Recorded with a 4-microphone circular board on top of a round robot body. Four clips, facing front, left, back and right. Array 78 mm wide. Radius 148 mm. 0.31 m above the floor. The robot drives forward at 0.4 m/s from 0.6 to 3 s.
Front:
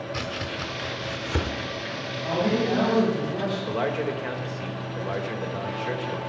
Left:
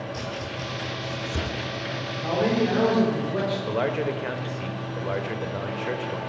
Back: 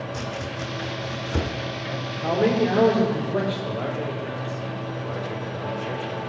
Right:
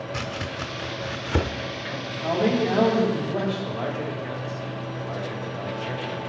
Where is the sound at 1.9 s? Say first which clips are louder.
Right 1 dB, back 3 dB; 165° left, 6 m.